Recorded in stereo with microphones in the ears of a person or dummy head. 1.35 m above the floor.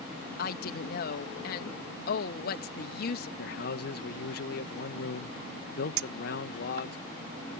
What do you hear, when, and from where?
0.4 s a woman speaking: 65° left (ahead or behind)
3.4 s a man speaking: 55° left (ahead or behind)
6.0 s a clink: 80° right